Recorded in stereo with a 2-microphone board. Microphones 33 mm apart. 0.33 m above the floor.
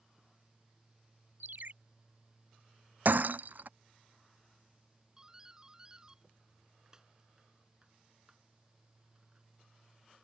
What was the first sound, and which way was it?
A ringtone, 65° right (ahead or behind).